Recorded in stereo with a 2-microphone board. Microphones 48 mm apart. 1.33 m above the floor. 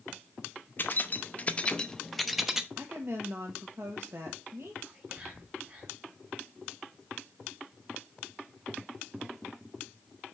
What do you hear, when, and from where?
0.8 s keys jangling: 40° left (ahead or behind), 0.7 m; by 2.7 s 10° right (ahead or behind), 0.7 m
2.8 s a woman speaking: 60° right (ahead or behind), 1.2 m
4.8 s whispering: 25° right (ahead or behind), 3 m